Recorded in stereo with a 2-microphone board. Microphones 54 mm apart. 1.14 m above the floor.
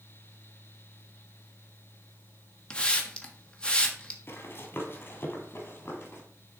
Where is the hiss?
20° left (ahead or behind), 1.1 m.